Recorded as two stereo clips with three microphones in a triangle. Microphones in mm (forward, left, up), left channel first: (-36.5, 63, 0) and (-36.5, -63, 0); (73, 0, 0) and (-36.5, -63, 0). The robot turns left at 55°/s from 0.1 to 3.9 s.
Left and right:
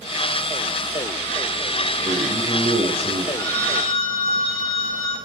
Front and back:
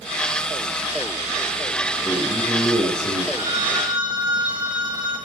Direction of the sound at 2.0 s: 80° right.